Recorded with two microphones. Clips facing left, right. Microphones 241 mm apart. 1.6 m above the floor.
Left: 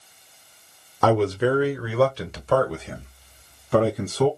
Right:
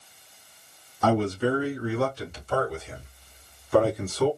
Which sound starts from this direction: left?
A man speaking, at 1.0 s.